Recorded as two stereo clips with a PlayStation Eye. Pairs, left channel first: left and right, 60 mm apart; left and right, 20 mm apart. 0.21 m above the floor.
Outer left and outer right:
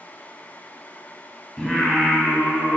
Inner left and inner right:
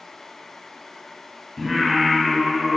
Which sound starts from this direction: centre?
Singing, at 1.6 s.